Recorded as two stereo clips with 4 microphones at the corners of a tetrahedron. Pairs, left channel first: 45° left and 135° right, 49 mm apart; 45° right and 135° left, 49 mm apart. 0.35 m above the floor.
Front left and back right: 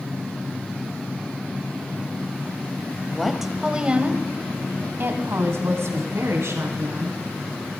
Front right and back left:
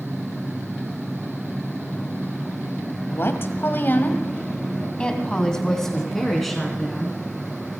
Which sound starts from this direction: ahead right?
A woman speaking, at 3.1 s.